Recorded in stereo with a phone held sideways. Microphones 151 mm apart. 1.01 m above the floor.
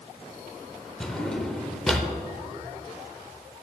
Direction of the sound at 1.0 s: 5° left (ahead or behind).